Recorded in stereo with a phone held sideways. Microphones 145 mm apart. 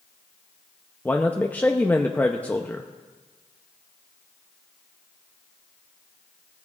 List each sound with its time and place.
1.1 s a man speaking: 10° left (ahead or behind), 0.6 m